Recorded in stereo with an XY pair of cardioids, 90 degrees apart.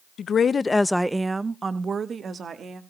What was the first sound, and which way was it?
A woman speaking, 60° left.